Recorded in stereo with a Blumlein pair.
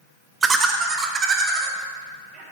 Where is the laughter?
15° right, 0.6 m; by 2.4 s 25° right, 2 m.